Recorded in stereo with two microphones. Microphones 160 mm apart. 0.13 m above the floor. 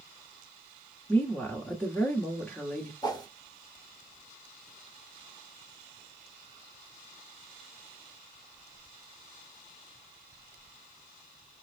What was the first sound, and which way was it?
A woman speaking, 10° left (ahead or behind).